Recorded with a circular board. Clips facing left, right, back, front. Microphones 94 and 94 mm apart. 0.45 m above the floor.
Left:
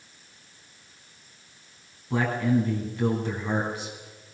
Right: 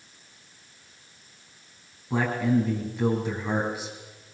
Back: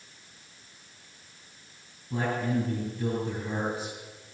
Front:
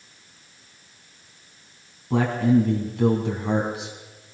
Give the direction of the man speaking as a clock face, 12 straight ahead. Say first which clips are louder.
Even, front 9 dB; 12 o'clock.